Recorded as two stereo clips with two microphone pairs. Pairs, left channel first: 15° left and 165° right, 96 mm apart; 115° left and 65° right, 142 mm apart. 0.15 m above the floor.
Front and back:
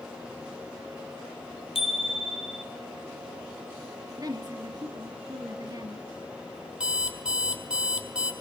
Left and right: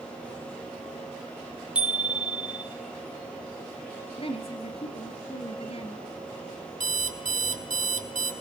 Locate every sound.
1.8 s a bicycle bell: 15° left, 4 m
4.2 s a woman speaking: 155° left, 2.5 m
6.8 s an alarm clock: 85° right, 2.5 m